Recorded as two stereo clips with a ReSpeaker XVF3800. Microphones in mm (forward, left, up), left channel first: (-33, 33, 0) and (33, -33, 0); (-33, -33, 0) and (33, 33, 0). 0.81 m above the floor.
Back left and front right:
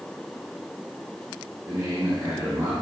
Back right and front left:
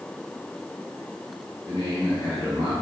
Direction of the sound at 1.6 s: 85° right.